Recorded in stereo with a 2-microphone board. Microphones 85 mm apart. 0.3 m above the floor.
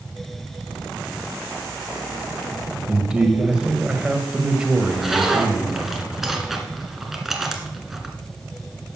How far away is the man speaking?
About 1.6 m.